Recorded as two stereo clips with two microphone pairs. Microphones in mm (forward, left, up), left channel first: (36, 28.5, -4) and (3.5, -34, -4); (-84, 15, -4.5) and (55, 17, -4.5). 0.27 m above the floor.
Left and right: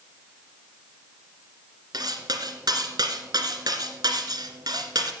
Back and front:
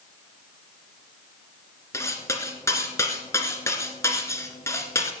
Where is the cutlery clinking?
110° right, 1.9 m.